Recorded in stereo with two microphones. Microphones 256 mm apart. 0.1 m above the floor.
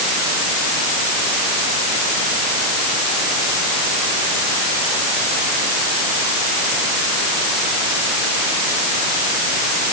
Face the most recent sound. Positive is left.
No sound to turn to.